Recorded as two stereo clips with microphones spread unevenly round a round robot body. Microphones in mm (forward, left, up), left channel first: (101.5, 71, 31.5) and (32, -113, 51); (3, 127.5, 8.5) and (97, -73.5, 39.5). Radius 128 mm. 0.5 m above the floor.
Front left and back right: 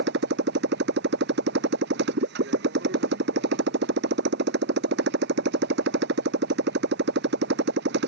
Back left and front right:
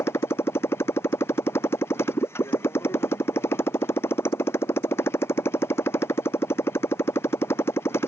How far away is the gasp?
No gasp in this recording.